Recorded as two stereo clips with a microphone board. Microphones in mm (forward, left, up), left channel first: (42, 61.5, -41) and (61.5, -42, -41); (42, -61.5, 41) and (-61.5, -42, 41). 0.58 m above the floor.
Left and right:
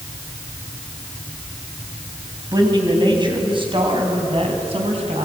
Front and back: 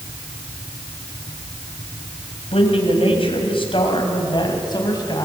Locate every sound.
2.5 s a man speaking: 30° right, 4 m; by 5.2 s 60° right, 5 m